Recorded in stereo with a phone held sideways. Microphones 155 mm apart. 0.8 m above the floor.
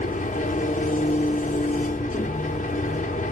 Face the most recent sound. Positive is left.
turn(degrees=55)  # may be behind; listen again after turning